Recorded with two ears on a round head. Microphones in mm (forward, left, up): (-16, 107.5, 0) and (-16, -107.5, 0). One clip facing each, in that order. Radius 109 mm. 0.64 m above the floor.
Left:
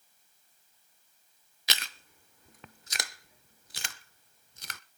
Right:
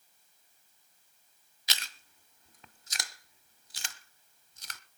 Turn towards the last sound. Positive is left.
turn(degrees=50)  # may be behind; listen again after turning